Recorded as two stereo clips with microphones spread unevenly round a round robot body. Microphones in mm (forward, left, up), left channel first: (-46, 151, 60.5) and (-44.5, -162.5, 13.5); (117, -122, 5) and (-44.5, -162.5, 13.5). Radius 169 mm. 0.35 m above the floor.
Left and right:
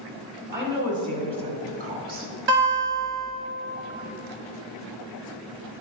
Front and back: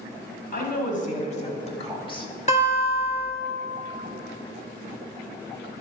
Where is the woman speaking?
15° right, 2 m; by 2.3 s 40° right, 1.4 m.